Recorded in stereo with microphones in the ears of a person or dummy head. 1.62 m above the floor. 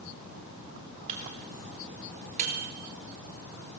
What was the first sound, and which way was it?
A microwave, 35° right (ahead or behind).